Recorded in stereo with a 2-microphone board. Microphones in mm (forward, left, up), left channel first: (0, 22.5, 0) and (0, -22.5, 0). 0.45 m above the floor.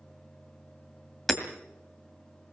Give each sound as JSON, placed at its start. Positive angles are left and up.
{"t": 1.3, "sound": "hammering", "side_deg": 5, "distance_m": 1.9}